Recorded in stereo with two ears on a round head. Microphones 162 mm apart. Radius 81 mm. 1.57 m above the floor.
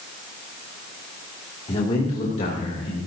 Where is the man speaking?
30° left (ahead or behind), 2.5 m; by 3.0 s 40° left (ahead or behind), 3.5 m.